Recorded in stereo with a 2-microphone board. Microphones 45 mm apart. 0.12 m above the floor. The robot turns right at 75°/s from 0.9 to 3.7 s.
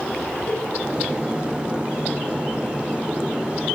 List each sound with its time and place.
0.5 s a cowbell: 35° left (ahead or behind), 2.0 m